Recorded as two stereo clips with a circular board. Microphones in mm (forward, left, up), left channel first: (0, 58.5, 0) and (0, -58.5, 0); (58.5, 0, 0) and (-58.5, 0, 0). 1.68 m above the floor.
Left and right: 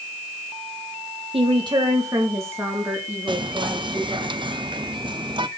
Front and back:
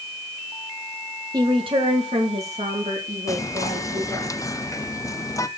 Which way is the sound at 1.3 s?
125° right.